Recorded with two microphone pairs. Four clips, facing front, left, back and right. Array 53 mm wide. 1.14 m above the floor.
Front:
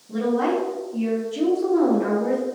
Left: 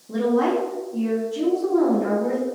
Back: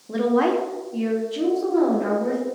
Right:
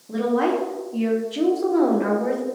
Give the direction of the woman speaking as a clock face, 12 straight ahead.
6 o'clock.